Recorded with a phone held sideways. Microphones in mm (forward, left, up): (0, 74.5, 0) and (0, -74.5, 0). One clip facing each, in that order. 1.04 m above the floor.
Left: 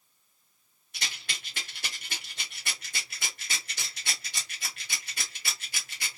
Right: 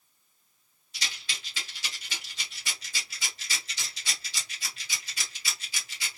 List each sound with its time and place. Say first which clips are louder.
0.9 s a rattle: even; 60° left (ahead or behind), 1.4 m